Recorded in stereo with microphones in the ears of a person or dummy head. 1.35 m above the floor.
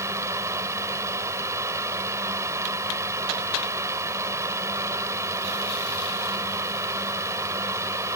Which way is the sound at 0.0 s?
15° right (ahead or behind).